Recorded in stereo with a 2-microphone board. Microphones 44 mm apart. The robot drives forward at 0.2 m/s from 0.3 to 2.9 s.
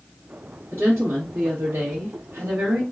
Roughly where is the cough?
No cough in this recording.